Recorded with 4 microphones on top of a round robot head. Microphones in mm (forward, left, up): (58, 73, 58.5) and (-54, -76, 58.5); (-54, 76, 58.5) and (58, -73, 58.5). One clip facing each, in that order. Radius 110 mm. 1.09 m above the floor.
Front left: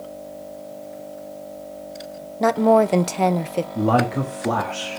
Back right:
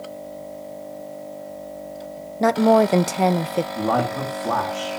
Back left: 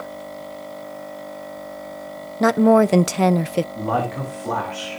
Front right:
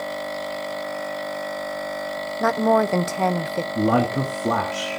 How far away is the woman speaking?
About 0.5 m.